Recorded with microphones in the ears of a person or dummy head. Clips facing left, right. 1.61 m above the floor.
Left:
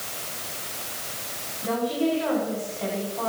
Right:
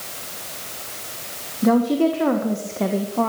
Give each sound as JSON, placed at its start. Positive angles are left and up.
{"t": 1.6, "sound": "a woman speaking", "side_deg": -60, "distance_m": 1.6}